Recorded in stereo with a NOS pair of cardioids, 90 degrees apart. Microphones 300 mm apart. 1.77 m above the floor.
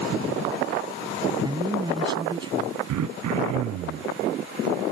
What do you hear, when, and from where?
1.4 s a man speaking: 15° right
2.9 s throat clearing: 65° right